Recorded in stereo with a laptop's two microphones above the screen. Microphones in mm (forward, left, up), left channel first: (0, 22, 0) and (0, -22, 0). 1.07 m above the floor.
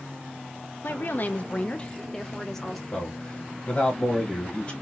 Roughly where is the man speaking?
Left.